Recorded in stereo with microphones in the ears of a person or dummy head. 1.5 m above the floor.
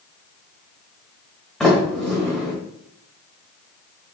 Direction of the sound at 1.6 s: Centre (ahead or behind).